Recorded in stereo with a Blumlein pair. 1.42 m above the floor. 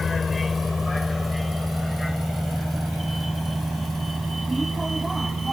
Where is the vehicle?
15° left; by 5.5 s 10° right.